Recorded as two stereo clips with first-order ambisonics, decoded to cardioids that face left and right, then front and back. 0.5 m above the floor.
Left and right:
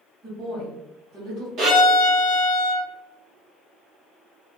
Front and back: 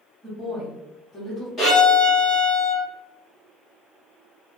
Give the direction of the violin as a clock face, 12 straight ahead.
2 o'clock.